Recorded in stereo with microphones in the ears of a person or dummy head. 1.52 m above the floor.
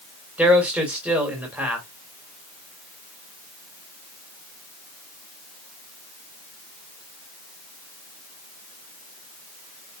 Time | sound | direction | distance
0.4 | a man speaking | 10° right (ahead or behind) | 2.0 m